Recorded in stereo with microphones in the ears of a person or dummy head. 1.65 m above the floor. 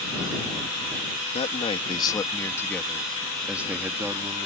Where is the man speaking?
35° left (ahead or behind); by 4.5 s 15° right (ahead or behind).